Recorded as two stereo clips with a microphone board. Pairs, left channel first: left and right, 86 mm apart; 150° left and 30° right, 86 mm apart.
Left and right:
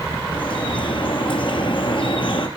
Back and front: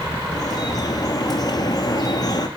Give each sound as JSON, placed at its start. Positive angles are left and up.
{"t": 0.3, "sound": "dripping", "azimuth_deg": 110, "distance_m": 2.5}